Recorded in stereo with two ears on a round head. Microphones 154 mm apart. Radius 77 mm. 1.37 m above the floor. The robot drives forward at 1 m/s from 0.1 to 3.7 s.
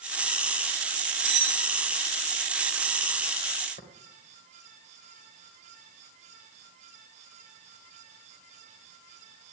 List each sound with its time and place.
1.2 s cutlery clinking: 35° right (ahead or behind), 1.8 m; by 1.7 s 40° right (ahead or behind), 1.5 m
3.8 s tapping: 45° left (ahead or behind), 3 m